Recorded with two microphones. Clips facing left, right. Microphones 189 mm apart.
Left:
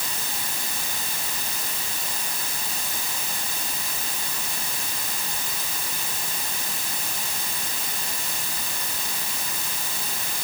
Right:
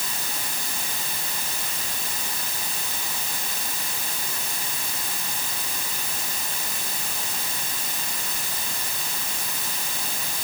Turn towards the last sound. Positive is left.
No sound to turn to.